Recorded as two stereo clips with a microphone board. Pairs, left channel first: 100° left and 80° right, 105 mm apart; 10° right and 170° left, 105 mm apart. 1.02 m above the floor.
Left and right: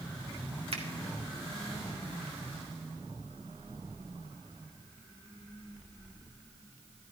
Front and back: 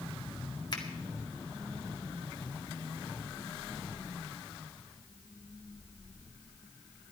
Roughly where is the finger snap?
Ahead right.